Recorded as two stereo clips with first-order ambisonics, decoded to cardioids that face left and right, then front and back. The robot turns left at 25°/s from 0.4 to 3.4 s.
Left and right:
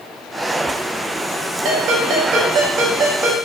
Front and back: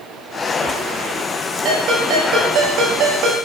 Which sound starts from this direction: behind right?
A ringtone, at 1.6 s.